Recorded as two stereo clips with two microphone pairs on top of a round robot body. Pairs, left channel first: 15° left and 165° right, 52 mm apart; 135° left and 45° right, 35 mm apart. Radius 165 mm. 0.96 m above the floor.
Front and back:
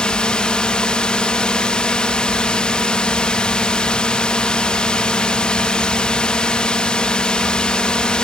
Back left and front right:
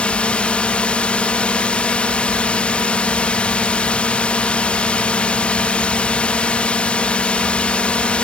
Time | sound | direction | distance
0.0 | a drone | 80° left | ?